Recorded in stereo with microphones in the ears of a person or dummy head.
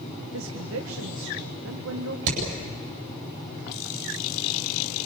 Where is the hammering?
75° right (ahead or behind), 8.5 m.